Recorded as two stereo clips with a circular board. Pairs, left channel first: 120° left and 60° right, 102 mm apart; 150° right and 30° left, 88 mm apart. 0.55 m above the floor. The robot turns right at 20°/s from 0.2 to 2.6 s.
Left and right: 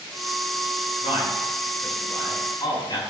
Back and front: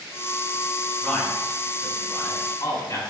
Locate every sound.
1.0 s a man speaking: 130° left, 5.5 m; by 3.0 s 165° left, 5.5 m